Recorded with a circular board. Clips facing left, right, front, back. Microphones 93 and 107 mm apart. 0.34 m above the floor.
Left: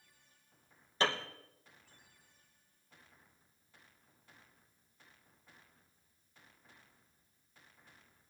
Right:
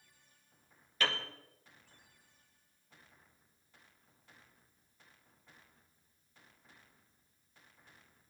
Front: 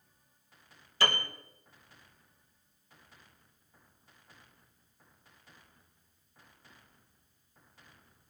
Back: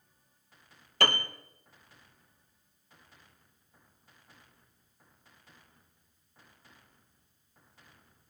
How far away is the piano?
About 2 m.